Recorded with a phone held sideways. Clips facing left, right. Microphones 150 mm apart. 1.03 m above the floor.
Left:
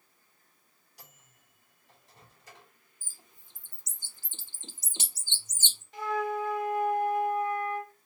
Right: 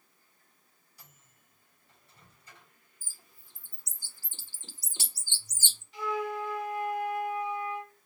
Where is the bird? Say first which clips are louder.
Left 2 dB; 20° left (ahead or behind), 0.7 m.